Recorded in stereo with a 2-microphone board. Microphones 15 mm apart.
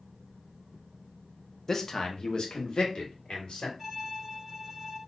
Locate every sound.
1.7 s a man speaking: 20° left (ahead or behind), 0.6 m; by 3.7 s 60° left (ahead or behind), 1.5 m
3.8 s a violin: 5° right (ahead or behind), 1.6 m